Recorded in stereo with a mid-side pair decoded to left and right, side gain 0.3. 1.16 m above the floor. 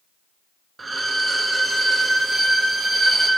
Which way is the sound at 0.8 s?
45° right.